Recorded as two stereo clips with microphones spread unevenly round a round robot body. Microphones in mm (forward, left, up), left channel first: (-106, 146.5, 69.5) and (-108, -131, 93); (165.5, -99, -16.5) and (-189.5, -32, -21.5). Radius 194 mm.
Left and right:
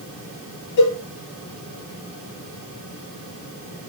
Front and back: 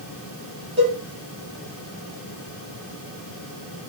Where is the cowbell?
90° left, 5 m.